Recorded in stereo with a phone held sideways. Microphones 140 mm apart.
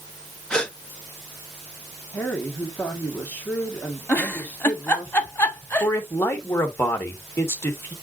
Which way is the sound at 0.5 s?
5° left (ahead or behind).